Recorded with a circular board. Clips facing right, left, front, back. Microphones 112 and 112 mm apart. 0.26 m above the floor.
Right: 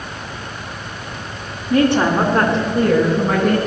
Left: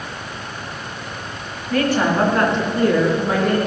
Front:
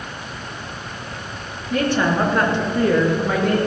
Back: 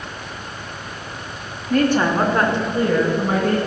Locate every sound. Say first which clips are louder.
1.7 s a woman speaking: right 3 dB, back 2 dB; 155° right, 2 m; by 3.6 s 135° right, 4 m